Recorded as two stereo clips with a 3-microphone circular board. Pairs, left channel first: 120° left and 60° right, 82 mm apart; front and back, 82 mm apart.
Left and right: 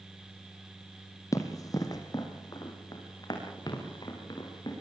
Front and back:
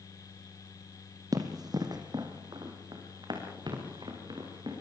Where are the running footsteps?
155° left, 2.5 m.